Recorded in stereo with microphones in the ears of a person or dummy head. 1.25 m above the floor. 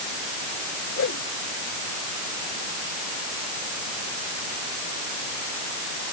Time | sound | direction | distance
1.0 | a whoosh | 55° left (ahead or behind) | ?